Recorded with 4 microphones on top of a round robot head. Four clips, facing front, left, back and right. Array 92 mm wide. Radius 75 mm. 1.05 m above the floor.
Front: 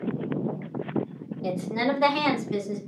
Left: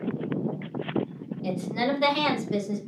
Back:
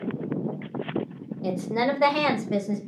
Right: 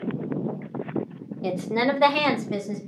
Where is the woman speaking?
105° right, 0.8 m; by 2.8 s 150° right, 1.5 m.